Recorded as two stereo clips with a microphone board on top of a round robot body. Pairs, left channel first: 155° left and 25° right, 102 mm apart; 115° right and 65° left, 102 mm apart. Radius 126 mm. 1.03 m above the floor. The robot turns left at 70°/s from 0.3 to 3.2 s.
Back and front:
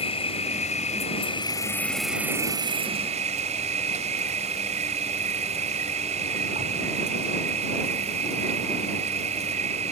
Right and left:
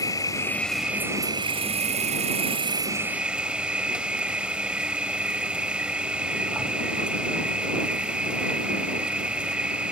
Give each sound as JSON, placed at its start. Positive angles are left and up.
{"t": 0.0, "sound": "an insect", "azimuth_deg": -170}